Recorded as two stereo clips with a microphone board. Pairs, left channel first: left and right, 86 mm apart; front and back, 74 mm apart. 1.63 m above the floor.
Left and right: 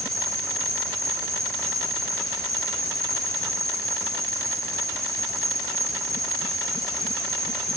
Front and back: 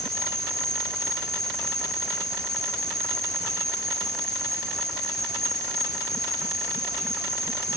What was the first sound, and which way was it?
An insect, 40° right.